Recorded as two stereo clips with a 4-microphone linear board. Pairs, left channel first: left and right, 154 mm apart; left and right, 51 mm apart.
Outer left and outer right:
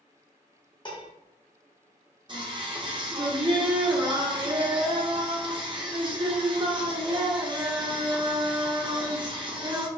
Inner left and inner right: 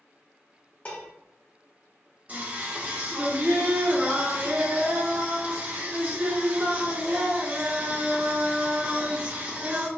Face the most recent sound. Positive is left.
turn(degrees=-30)  # may be behind; listen again after turning